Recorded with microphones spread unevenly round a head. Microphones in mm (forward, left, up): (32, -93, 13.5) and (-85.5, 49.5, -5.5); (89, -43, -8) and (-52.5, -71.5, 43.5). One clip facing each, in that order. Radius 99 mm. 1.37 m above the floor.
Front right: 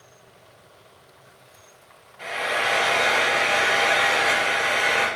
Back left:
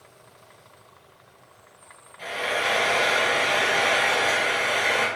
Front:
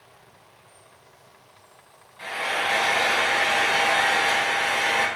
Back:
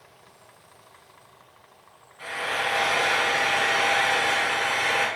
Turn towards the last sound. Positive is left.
turn(degrees=50)